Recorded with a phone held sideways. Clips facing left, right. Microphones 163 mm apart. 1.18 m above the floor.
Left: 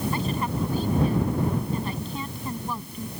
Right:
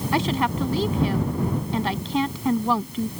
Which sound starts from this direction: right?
A woman speaking, at 0.1 s.